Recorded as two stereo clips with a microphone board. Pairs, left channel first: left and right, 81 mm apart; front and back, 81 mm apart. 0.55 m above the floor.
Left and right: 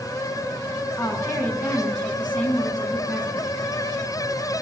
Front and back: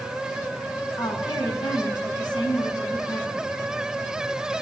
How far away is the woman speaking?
About 5.5 m.